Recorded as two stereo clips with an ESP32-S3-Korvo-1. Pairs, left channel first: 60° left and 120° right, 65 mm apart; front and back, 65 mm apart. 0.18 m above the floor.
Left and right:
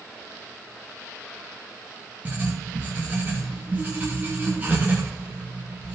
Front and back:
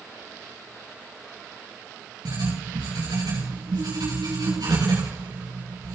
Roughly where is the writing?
Behind.